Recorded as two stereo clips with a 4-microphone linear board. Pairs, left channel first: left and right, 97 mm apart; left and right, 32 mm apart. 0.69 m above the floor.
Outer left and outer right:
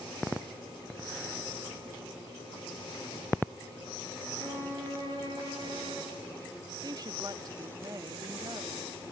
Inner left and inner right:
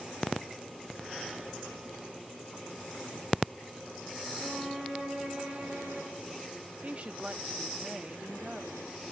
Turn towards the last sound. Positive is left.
turn(degrees=-40)  # may be behind; listen again after turning